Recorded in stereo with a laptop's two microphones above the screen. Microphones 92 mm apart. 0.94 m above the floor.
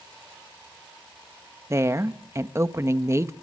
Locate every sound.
1.7 s a woman speaking: 30° right (ahead or behind), 1.3 m